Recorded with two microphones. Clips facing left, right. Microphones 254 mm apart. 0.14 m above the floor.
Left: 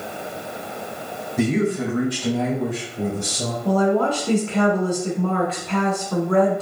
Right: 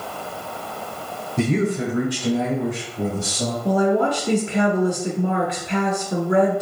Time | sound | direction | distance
1.4 | a man speaking | 25° right (ahead or behind) | 1.8 m
3.6 | a woman speaking | 15° right (ahead or behind) | 1.1 m